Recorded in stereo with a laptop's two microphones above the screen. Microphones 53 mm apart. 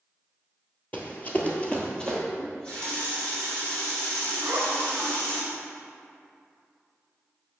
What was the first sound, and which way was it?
Running footsteps, 30° left (ahead or behind).